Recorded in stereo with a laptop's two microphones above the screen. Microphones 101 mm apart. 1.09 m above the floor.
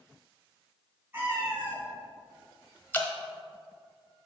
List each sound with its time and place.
1.1 s a cat meowing: 20° right (ahead or behind), 1.8 m
2.9 s dripping: 20° left (ahead or behind), 0.9 m